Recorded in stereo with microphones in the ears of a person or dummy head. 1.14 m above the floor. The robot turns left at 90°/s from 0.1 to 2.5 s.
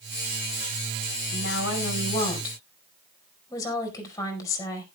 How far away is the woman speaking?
About 5 m.